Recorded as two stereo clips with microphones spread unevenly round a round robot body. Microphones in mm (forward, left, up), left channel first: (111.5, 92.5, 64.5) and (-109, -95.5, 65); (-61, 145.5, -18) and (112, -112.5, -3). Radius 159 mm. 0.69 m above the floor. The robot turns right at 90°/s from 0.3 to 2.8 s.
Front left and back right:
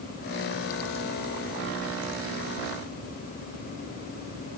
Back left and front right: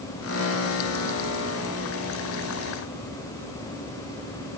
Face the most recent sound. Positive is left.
No sound to turn to.